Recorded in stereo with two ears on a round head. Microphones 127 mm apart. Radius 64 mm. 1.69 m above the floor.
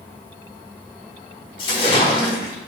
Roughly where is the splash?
Left.